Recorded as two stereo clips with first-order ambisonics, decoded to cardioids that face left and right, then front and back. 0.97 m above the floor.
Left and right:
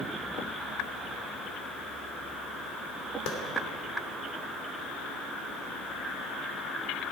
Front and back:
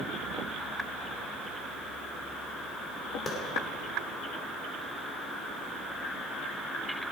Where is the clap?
70° left, 2.5 m.